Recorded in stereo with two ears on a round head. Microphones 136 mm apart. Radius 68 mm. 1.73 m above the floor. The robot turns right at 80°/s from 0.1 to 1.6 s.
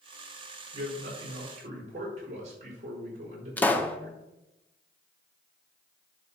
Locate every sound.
0.7 s a man speaking: 120° right, 5.5 m; by 4.2 s 50° right, 5.5 m
3.6 s a pop: 10° left (ahead or behind), 0.8 m